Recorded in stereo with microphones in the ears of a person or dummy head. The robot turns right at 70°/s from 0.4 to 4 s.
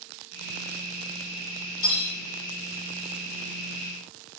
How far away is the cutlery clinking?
About 1.8 m.